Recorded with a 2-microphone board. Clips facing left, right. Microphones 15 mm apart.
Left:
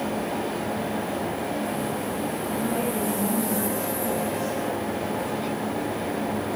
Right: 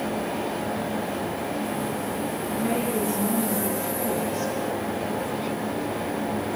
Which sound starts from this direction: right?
A woman speaking, at 2.6 s.